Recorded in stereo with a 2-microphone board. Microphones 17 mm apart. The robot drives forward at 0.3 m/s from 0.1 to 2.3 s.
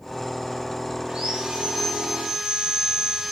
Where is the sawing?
80° right, 2 m; by 3.3 s 85° right, 2 m.